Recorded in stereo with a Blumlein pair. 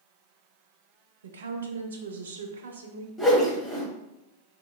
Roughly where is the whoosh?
Ahead.